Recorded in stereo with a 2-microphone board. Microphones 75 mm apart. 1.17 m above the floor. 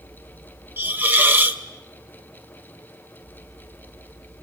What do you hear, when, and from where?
0.8 s a hiss: 25° right (ahead or behind), 1.4 m